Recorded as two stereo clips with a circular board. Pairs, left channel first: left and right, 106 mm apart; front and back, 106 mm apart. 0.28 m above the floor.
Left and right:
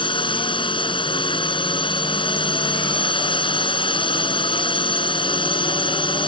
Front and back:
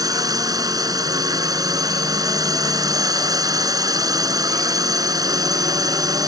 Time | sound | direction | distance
0.0 | a drone | 125° left | ?